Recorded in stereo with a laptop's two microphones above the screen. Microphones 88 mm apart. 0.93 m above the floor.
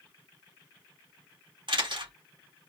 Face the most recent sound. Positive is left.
turn(degrees=-65)  # may be behind; listen again after turning